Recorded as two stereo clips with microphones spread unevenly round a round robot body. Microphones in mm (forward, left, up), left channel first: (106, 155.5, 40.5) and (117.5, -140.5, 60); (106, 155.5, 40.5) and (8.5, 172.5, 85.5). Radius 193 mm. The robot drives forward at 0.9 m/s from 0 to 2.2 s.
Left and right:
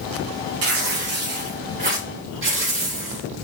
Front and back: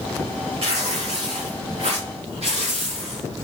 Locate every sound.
0.6 s tearing paper: 140° right, 1.8 m; by 3.2 s 160° right, 3 m